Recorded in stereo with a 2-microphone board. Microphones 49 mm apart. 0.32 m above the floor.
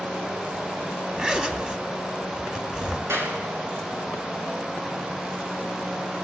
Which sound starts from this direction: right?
A clap, at 3.1 s.